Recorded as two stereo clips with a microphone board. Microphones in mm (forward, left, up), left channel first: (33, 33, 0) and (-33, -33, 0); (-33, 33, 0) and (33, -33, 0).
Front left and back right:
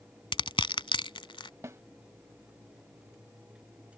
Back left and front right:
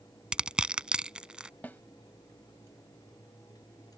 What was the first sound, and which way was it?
Crushing, 35° left.